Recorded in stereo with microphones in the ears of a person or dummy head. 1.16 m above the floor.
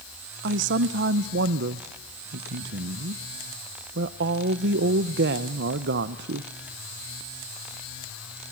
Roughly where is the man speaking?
Right.